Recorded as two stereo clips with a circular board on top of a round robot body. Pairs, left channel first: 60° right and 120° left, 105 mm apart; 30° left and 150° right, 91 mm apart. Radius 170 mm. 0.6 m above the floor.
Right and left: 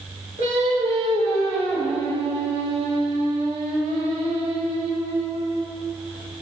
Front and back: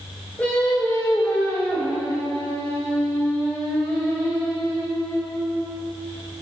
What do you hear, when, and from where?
0.4 s singing: 105° left, 3 m